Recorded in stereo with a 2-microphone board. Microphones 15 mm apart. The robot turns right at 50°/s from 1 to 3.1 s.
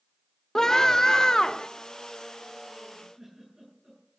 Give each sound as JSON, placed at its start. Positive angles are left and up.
{"t": 0.6, "sound": "a scream", "azimuth_deg": 45, "distance_m": 1.1}
{"t": 2.9, "sound": "a giggle", "side_deg": -35, "distance_m": 8.5}